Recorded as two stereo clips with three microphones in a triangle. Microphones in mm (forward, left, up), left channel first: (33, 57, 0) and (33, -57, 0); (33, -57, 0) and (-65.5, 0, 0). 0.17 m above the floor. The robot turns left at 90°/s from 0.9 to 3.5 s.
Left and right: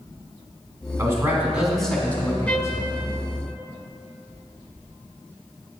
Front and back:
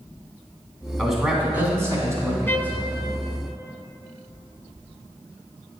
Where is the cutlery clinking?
No cutlery clinking in this recording.